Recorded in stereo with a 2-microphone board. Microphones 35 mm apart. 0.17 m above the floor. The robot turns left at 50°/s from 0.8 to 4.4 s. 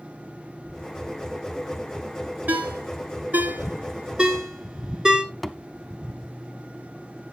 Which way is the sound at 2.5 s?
50° right (ahead or behind).